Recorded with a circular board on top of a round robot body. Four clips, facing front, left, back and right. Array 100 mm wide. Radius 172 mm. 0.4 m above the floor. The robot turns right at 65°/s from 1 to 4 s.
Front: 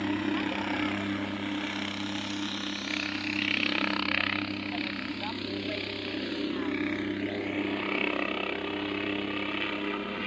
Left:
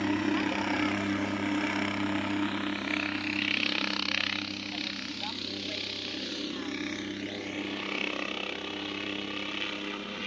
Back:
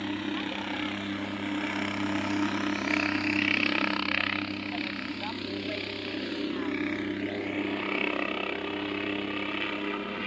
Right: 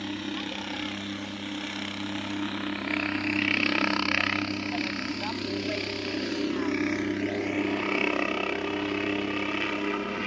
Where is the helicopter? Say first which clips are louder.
Left 6 dB, front 3 dB; 70° left; by 10.3 s 95° right.